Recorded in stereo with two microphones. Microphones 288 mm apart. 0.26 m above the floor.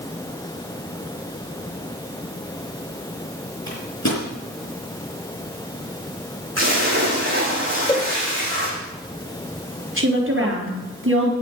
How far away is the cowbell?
About 1.0 m.